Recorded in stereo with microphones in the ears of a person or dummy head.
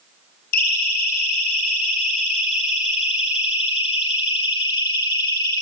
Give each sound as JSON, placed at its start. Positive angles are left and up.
{"t": 0.5, "sound": "a siren", "side_deg": 55, "distance_m": 7.5}